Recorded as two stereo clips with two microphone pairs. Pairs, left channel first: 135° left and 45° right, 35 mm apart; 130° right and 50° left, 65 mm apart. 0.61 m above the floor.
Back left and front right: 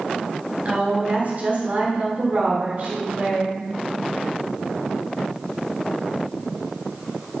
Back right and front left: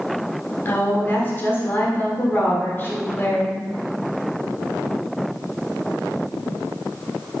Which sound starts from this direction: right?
A woman speaking, at 0.7 s.